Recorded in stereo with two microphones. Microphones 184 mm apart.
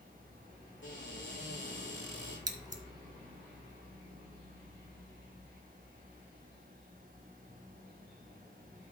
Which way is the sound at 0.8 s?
80° left.